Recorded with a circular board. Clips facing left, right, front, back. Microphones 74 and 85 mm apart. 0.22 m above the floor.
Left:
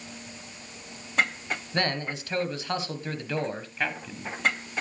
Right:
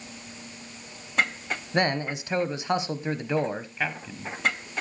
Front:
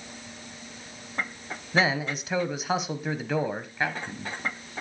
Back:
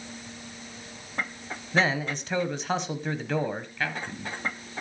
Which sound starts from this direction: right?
A man speaking, at 1.7 s.